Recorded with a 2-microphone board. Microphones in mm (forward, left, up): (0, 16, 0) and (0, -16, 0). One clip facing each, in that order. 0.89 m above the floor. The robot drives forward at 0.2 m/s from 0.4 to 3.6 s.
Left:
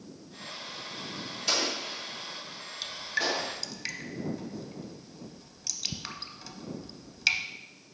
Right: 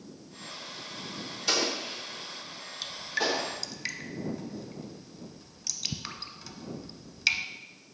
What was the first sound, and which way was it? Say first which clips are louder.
An explosion: right 1 dB; centre (ahead or behind).